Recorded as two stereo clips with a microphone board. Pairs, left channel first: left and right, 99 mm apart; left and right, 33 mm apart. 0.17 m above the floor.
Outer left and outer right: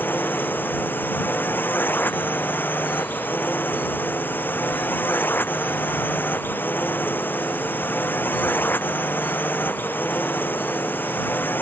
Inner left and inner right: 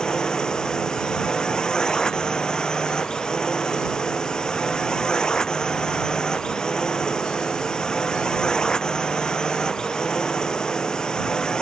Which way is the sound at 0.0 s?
20° left (ahead or behind).